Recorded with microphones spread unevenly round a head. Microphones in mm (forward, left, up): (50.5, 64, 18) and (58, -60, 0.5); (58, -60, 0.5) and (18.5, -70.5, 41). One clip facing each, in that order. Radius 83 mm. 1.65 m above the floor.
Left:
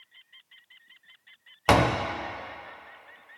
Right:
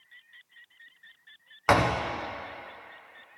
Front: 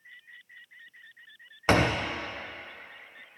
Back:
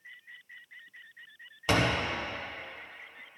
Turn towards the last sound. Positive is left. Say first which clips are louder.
# left 2 dB, front 3 dB
turn(degrees=130)